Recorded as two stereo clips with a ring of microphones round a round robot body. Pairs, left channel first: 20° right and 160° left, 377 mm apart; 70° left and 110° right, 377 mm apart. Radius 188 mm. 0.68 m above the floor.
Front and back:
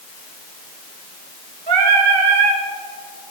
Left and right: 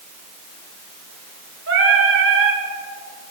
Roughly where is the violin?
No violin in this recording.